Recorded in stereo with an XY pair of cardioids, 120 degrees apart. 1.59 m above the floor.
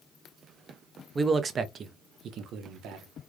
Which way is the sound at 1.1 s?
20° right.